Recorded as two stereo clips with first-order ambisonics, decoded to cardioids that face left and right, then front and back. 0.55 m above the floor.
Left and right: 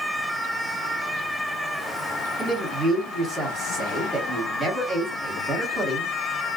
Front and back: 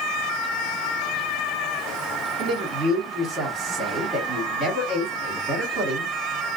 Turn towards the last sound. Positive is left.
turn(degrees=-160)